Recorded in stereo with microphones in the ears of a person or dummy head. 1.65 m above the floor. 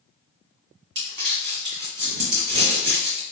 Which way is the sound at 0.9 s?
55° right (ahead or behind).